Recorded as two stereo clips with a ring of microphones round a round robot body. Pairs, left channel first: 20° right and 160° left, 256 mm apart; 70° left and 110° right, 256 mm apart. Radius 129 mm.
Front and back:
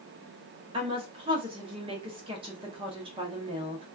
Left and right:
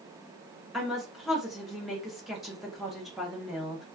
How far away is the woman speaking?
About 0.8 m.